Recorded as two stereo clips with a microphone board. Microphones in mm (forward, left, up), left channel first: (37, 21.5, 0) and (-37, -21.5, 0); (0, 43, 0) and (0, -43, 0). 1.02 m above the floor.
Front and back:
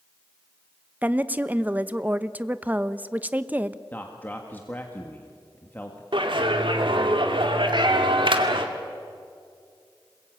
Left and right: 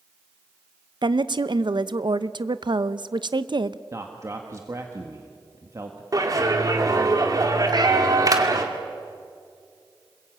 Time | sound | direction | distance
1.0 | a woman speaking | 80° right | 0.8 m
3.9 | a man speaking | 40° right | 1.7 m
6.1 | a clap | 135° right | 2 m
7.7 | a cat meowing | 125° right | 2.5 m